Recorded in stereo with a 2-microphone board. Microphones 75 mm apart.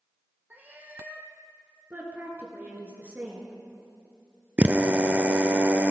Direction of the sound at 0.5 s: 25° right (ahead or behind).